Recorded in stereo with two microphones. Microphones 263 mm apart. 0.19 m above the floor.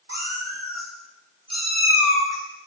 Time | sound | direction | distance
0.1 | a cat meowing | 40° right (ahead or behind) | 2.5 m